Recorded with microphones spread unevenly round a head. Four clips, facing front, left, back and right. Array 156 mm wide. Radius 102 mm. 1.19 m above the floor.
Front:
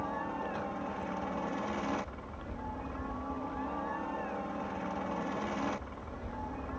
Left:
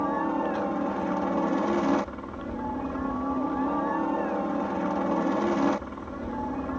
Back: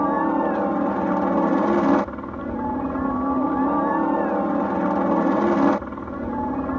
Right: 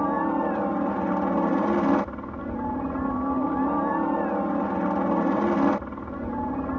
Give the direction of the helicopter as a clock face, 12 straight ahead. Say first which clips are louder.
Right 3 dB, back 16 dB; 6 o'clock.